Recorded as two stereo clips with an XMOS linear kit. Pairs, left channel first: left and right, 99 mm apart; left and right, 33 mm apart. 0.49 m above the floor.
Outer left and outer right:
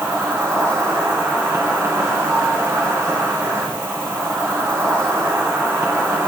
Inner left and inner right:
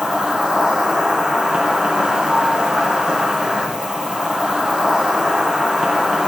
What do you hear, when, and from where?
0.0 s an insect: 30° right (ahead or behind), 2 m